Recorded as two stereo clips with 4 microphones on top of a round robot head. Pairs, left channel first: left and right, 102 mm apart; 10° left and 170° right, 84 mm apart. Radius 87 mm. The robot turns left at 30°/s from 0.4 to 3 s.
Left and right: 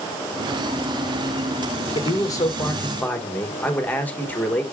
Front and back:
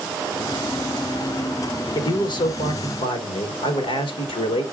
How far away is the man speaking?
About 1.2 m.